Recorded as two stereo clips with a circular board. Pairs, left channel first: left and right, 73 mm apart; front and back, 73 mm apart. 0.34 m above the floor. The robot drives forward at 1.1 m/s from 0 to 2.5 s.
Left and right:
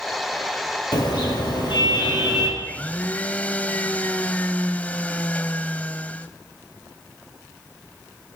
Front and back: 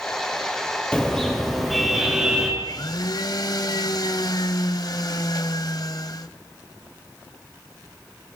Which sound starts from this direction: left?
A car horn, at 0.9 s.